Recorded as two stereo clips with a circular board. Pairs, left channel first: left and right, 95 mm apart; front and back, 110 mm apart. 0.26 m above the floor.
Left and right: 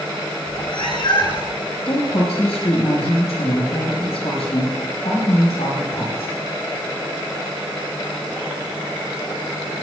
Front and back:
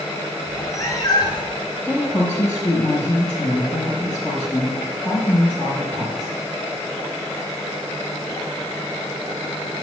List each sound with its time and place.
0.5 s a cat meowing: 70° left, 1.7 m; by 1.6 s 40° left, 2.5 m
1.9 s a woman speaking: 85° left, 6 m